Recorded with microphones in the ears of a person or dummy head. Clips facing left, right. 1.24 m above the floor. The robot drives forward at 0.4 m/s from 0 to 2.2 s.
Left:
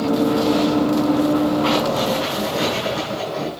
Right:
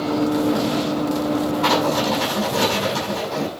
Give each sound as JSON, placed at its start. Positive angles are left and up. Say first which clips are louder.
{"t": 1.6, "sound": "writing", "louder": "left 1 dB", "side_deg": -75, "distance_m": 5.0}